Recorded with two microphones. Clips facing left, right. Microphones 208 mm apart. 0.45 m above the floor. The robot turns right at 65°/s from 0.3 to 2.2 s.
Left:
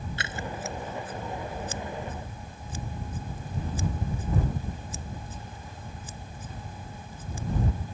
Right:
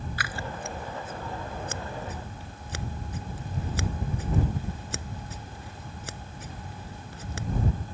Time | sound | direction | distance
0.2 | scissors | 25° left (ahead or behind) | ?